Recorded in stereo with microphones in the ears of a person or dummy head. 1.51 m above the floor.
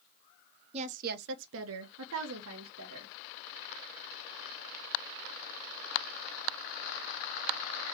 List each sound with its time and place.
0.7 s a woman speaking: 35° right (ahead or behind), 0.6 m; by 3.1 s 65° right (ahead or behind), 1.4 m